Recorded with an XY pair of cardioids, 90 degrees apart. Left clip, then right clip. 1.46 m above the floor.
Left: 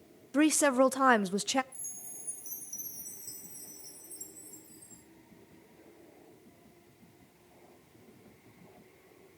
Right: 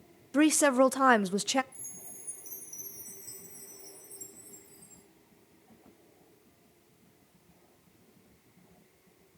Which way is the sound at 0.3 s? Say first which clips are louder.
Right 2 dB; 10° right.